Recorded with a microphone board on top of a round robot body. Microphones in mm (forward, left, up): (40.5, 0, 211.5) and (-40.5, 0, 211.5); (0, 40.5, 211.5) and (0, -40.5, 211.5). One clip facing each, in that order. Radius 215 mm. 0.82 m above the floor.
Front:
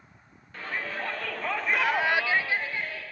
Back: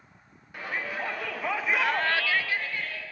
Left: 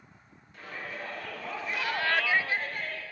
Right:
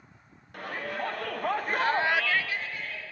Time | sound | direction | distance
0.5 | a shout | 105° right | 2.5 m